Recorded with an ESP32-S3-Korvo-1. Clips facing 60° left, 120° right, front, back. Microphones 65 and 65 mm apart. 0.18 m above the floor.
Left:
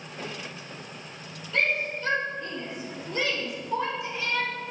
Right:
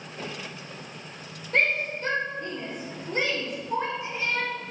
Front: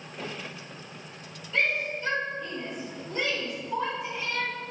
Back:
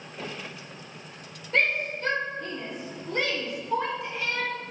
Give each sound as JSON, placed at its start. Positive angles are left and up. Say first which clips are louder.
{"t": 1.5, "sound": "a shout", "louder": "right 2 dB, back 2 dB", "azimuth_deg": -150, "distance_m": 6.0}